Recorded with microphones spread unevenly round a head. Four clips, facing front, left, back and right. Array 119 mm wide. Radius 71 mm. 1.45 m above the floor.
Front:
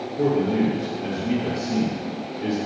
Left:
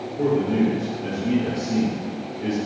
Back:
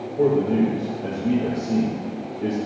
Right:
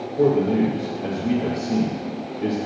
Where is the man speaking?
130° right, 1.9 m.